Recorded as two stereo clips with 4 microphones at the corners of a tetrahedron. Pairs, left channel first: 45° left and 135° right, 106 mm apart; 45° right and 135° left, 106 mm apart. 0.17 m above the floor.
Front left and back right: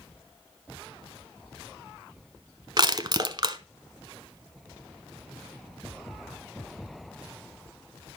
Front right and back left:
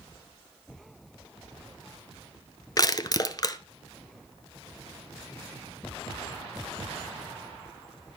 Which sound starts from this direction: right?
Crushing, at 2.8 s.